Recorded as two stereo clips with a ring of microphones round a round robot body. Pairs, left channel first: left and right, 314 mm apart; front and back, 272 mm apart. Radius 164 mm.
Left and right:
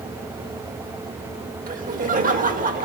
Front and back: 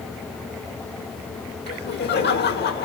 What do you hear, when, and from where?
1.7 s laughter: 35° right, 1.9 m